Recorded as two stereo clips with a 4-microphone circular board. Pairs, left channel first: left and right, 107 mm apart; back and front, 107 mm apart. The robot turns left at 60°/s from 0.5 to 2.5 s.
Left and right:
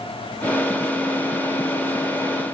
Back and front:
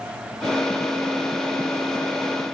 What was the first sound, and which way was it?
Only background noise.